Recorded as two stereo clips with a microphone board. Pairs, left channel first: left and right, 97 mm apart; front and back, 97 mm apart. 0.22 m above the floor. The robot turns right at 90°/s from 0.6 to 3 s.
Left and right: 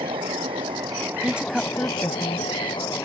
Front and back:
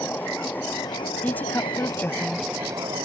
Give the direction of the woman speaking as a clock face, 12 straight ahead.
1 o'clock.